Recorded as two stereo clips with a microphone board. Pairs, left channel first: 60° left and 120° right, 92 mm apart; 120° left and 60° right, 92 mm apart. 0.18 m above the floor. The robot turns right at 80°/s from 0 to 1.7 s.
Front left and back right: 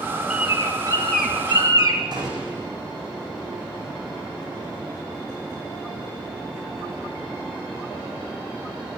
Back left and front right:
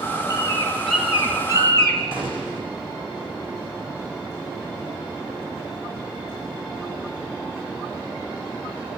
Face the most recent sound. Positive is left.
turn(degrees=-85)